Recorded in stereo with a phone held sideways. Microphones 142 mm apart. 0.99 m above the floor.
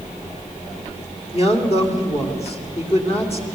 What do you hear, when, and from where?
1.3 s a man speaking: 45° left (ahead or behind), 2.5 m